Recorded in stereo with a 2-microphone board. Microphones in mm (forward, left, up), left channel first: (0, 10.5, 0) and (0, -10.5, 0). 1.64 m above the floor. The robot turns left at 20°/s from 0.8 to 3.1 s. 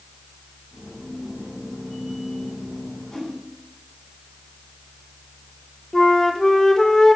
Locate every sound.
3.1 s a whoosh: 15° left (ahead or behind), 5.5 m
5.9 s a flute: 20° left (ahead or behind), 1.2 m